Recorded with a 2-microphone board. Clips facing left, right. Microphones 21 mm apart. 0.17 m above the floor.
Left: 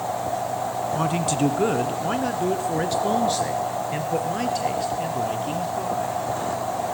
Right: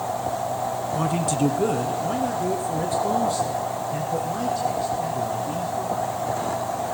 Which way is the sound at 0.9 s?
10° left (ahead or behind).